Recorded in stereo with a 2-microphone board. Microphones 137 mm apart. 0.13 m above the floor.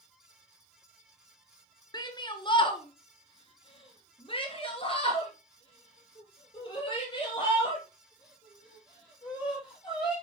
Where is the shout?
30° left (ahead or behind), 1.7 m; by 10.1 s 35° left (ahead or behind), 5 m.